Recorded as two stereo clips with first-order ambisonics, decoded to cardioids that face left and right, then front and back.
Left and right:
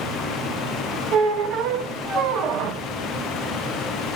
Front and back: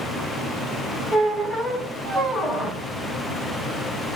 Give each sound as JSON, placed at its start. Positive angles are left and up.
{"t": 1.1, "sound": "a squeak", "azimuth_deg": -90, "distance_m": 0.7}